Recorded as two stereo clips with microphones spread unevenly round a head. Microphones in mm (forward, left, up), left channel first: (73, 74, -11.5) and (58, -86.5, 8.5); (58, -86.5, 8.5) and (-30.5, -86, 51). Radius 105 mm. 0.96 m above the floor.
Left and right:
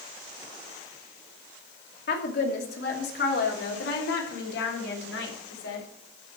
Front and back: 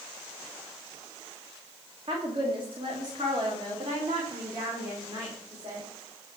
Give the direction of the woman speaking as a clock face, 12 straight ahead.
8 o'clock.